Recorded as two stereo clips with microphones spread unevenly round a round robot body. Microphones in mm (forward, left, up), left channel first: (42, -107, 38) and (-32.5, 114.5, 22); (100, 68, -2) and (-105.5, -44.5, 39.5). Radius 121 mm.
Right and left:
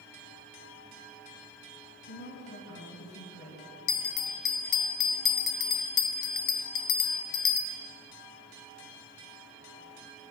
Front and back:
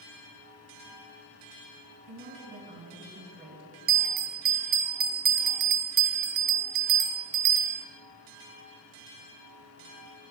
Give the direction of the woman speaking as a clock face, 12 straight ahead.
4 o'clock.